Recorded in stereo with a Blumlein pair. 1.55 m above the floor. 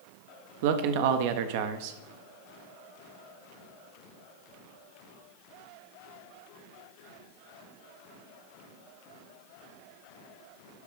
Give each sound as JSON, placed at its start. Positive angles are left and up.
{"t": 0.6, "sound": "a man speaking", "azimuth_deg": -50, "distance_m": 1.0}